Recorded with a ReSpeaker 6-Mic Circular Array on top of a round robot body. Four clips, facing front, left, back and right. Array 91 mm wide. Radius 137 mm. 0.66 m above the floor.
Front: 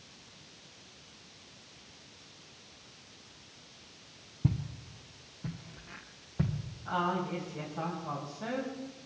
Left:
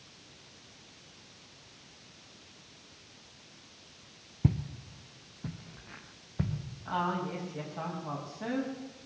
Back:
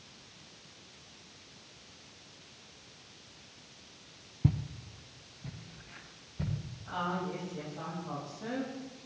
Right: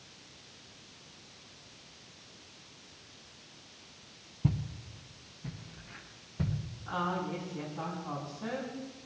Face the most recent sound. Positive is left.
turn(degrees=65)